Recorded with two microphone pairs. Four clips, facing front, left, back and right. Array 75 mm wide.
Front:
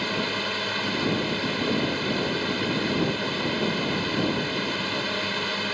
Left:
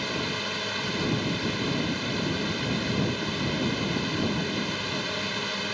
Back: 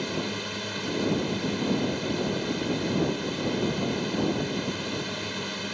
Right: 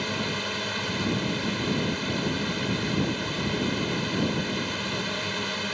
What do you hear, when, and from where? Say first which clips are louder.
0.0 s a drone: right 1 dB, front 3 dB; 5° right